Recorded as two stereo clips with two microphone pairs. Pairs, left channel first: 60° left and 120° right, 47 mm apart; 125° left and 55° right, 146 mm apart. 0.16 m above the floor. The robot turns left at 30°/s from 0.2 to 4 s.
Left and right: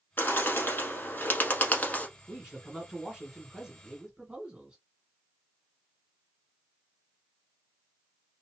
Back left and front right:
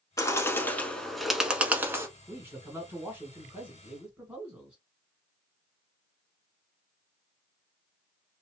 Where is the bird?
65° left, 0.8 m; by 2.1 s 10° left, 0.8 m.